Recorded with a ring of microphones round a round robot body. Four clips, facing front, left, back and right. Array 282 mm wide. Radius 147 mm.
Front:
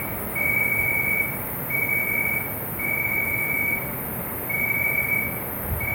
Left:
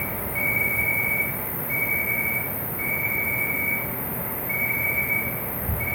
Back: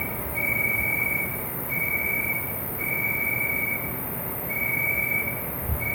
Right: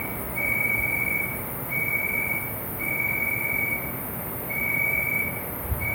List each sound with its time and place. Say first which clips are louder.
0.0 s an insect: left 2 dB, front 2 dB; 105° left, 1.3 m